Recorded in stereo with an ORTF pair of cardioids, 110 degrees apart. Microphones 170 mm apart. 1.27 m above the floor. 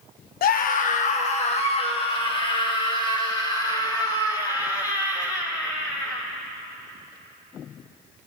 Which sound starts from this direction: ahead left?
A scream, at 0.4 s.